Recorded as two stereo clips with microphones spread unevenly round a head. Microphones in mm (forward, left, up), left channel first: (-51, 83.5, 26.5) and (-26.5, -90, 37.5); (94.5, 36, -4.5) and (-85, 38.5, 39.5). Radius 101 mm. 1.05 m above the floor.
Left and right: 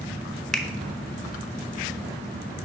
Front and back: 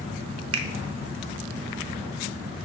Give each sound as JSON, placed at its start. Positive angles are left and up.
{"t": 0.5, "sound": "a finger snap", "azimuth_deg": -175, "distance_m": 0.7}